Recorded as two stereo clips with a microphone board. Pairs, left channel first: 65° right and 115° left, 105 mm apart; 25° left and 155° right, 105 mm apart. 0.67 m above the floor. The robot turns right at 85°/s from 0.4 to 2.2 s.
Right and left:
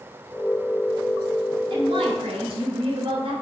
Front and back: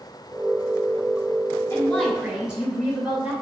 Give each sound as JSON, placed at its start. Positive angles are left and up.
{"t": 1.7, "sound": "a woman speaking", "azimuth_deg": 80, "distance_m": 3.0}